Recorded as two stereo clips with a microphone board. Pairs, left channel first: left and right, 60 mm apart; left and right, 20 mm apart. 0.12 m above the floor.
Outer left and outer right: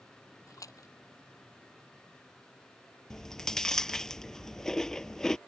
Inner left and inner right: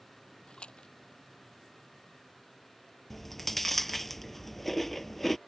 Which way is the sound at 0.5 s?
65° left (ahead or behind).